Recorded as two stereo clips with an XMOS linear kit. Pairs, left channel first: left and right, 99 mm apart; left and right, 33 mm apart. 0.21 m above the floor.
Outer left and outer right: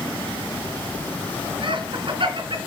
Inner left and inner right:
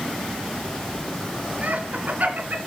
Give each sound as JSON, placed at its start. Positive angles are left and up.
{"t": 1.6, "sound": "laughter", "side_deg": -55, "distance_m": 3.0}